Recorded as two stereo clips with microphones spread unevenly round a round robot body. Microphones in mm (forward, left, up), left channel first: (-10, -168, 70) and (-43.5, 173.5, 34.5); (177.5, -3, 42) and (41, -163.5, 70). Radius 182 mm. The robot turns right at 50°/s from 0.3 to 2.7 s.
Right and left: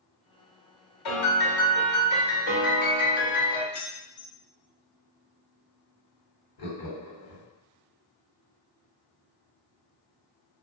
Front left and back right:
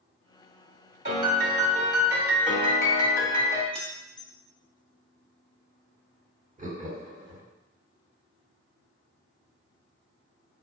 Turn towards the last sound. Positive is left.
turn(degrees=-75)